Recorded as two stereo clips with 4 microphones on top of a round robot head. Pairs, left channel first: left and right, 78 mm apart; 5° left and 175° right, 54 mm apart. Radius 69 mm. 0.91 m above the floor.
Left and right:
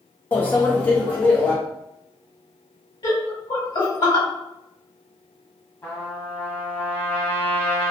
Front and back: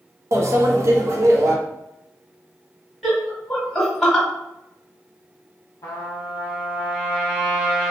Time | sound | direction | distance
0.3 | a microwave | 160° left | 0.6 m
3.0 | laughter | 90° left | 1.7 m
5.8 | a trumpet | 30° left | 0.8 m